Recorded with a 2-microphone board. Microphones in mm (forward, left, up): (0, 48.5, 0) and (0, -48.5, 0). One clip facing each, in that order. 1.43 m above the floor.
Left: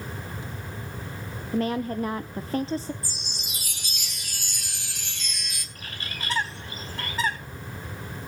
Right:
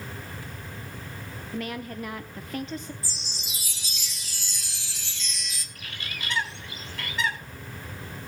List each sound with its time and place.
1.5 s a woman speaking: 35° left (ahead or behind), 0.5 m
3.0 s a chime: 55° left (ahead or behind), 1.6 m
5.8 s a bird: 40° left (ahead or behind), 4 m